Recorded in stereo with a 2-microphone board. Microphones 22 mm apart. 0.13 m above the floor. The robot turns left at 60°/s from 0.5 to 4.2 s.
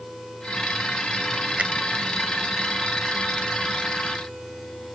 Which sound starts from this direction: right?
A finger snap, at 1.6 s.